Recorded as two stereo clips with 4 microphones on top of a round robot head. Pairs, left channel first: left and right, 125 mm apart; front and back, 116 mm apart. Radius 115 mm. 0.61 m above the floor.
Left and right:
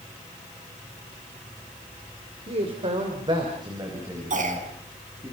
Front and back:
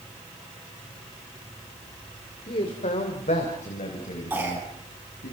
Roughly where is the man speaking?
Ahead right.